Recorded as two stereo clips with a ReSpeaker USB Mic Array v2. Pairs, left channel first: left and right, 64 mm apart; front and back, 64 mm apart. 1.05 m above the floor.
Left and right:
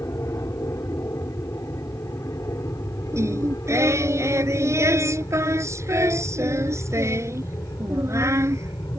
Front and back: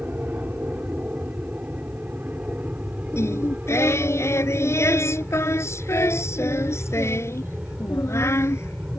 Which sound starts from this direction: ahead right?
Singing, at 3.1 s.